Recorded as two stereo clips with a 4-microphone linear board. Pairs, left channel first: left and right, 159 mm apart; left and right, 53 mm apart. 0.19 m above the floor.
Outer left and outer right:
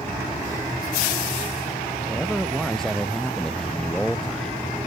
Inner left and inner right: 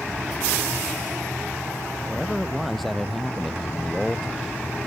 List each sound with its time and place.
2.1 s a man speaking: centre (ahead or behind)